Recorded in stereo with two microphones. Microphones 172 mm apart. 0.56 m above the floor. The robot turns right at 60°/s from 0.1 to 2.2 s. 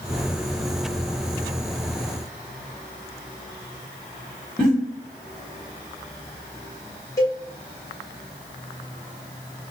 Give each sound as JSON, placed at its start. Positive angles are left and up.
{"t": 4.6, "sound": "a giggle", "side_deg": 5, "distance_m": 1.8}
{"t": 7.2, "sound": "a cowbell", "side_deg": 15, "distance_m": 1.0}